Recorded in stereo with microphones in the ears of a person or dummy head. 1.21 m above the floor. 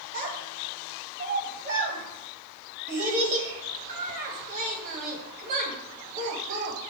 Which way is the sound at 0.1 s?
50° right (ahead or behind).